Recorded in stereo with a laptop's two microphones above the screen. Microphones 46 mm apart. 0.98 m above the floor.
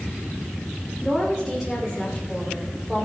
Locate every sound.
1.0 s a woman speaking: 5° right (ahead or behind), 3 m